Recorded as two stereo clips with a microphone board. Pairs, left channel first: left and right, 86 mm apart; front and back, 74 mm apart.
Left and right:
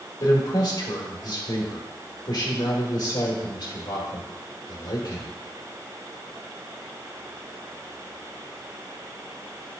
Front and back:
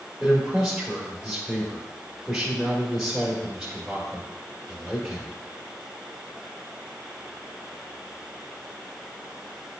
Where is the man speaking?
95° left, 1.7 m.